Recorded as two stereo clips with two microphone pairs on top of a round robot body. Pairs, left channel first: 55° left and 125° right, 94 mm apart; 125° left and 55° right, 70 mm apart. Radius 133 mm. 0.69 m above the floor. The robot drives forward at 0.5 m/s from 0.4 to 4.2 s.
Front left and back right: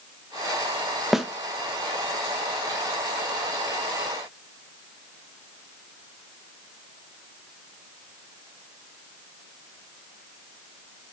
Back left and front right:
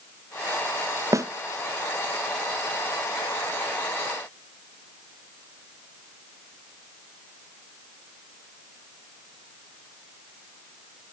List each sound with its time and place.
1.1 s a snare drum: 40° right, 1.0 m; by 1.3 s 45° right, 1.0 m